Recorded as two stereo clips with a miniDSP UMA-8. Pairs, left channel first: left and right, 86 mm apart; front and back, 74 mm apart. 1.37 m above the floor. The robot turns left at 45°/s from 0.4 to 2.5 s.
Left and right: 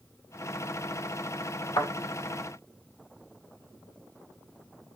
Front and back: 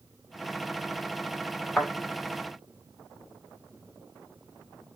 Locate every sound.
1.8 s a thud: 70° left, 1.4 m; by 1.9 s 60° left, 1.4 m